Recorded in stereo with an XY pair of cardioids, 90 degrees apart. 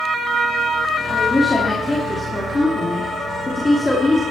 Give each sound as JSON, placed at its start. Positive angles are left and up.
{"t": 1.1, "sound": "a woman speaking", "azimuth_deg": 15, "distance_m": 3.0}